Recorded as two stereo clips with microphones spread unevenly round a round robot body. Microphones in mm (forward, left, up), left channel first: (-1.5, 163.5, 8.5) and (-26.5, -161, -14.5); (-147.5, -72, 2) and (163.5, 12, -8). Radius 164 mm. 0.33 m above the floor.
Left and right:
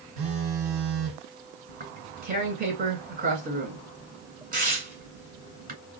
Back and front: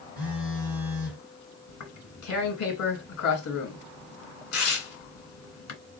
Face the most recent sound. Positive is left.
turn(degrees=-150)